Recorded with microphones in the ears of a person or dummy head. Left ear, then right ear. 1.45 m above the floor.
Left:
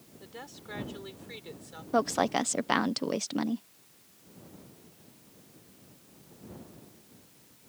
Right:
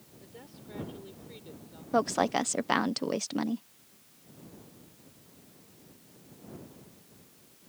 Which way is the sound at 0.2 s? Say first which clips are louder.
Left 6 dB; 55° left (ahead or behind).